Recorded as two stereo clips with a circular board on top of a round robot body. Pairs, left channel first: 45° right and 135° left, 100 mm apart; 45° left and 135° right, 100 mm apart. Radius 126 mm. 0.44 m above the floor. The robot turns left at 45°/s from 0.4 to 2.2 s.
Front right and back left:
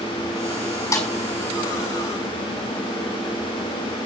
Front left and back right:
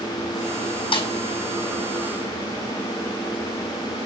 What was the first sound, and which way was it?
A snare drum, 15° left.